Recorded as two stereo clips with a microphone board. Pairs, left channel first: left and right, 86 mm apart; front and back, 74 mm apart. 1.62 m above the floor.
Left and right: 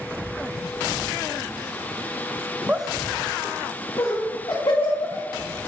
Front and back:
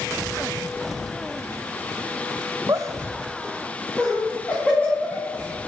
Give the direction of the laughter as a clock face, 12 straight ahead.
5 o'clock.